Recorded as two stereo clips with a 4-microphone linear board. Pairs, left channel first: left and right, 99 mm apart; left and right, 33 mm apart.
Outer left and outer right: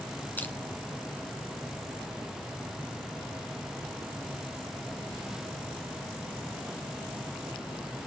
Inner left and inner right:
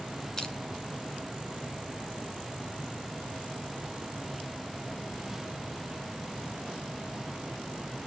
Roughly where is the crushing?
Centre.